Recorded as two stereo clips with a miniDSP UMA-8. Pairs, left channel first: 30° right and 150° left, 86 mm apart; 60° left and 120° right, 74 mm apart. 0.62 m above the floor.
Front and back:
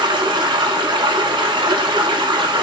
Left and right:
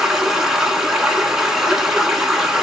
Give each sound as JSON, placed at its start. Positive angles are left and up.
{"t": 0.0, "sound": "running water", "azimuth_deg": 155, "distance_m": 1.1}